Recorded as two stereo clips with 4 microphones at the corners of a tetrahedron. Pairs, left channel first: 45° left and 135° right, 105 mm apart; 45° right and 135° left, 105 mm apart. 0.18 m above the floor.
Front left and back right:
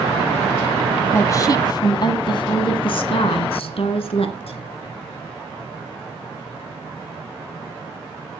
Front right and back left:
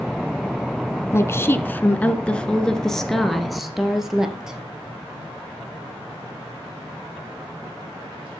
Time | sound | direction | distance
1.1 | a woman speaking | 5° right | 1.2 m